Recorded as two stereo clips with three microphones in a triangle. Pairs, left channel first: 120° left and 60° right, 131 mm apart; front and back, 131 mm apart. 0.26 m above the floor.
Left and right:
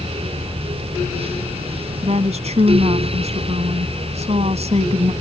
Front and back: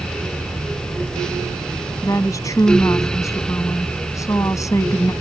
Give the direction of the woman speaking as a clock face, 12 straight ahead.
2 o'clock.